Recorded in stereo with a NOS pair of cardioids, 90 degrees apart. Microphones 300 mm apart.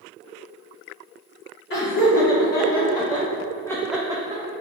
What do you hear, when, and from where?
1.7 s laughter: 35° left, 1.6 m; by 4.4 s 30° right, 0.5 m